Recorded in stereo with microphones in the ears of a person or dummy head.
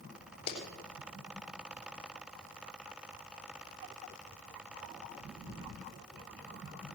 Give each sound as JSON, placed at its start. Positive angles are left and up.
{"t": 0.5, "sound": "a clap", "side_deg": 35, "distance_m": 3.0}